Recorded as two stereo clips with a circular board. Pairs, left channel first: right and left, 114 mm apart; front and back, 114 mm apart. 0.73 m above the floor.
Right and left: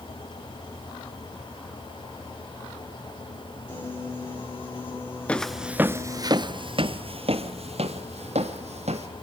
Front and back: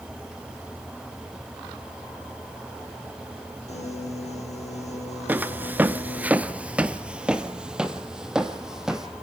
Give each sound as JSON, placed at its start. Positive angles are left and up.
{"t": 3.7, "sound": "a piano", "azimuth_deg": -20, "distance_m": 9.0}
{"t": 5.3, "sound": "footsteps", "azimuth_deg": -145, "distance_m": 0.7}